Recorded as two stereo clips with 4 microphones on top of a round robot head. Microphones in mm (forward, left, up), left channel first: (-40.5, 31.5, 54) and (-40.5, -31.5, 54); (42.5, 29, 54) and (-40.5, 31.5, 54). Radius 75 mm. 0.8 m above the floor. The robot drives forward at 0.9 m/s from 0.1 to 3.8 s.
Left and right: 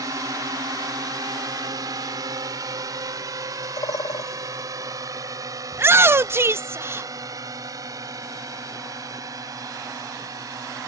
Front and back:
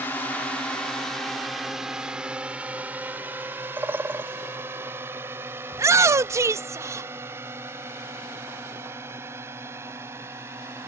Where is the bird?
110° left.